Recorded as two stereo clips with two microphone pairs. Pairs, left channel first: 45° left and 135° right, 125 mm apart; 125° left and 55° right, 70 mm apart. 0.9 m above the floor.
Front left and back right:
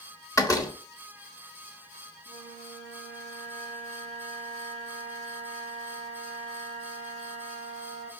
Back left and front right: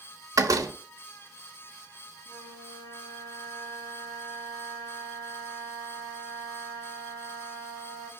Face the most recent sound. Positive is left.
turn(degrees=85)